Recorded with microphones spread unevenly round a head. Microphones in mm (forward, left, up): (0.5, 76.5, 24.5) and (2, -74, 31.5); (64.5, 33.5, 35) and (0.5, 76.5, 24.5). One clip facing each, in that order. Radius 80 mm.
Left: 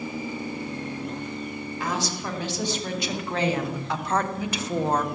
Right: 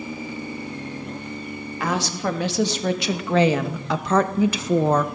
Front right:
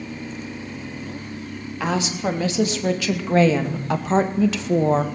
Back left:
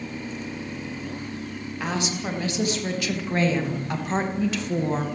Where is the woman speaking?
55° right, 3.5 m; by 5.1 s 75° right, 1.8 m.